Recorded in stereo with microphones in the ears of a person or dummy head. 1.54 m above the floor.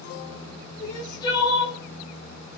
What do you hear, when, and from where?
0.8 s crying: 25° left (ahead or behind), 0.8 m